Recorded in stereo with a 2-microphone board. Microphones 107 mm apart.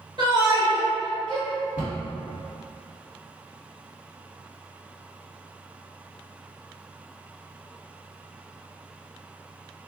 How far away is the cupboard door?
About 1.6 m.